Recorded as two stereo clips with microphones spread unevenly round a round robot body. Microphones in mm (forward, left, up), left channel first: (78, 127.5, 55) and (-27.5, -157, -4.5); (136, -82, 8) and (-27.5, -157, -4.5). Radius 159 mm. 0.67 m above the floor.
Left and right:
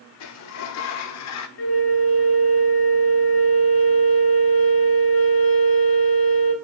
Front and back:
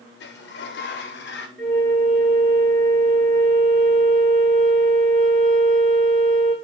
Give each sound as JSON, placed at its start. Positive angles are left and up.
{"t": 0.2, "sound": "a sliding door", "azimuth_deg": 40, "distance_m": 0.6}
{"t": 1.6, "sound": "a flute", "azimuth_deg": 90, "distance_m": 1.3}